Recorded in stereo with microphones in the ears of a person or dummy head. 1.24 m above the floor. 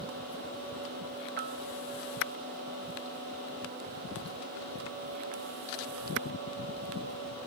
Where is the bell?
60° right (ahead or behind).